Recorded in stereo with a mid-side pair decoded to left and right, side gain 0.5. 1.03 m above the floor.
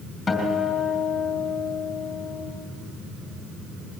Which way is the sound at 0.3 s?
25° left.